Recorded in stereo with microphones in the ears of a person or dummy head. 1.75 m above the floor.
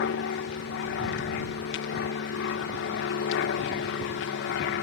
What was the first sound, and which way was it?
An aircraft, 60° left (ahead or behind).